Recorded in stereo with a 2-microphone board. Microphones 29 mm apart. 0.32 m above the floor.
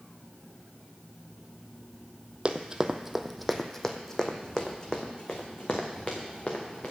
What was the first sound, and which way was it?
Running footsteps, 35° right (ahead or behind).